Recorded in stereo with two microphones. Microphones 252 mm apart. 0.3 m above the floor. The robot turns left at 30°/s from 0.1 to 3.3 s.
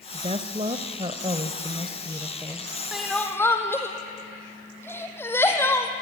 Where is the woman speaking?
25° right (ahead or behind), 0.9 m; by 2.7 s 10° right (ahead or behind), 0.9 m.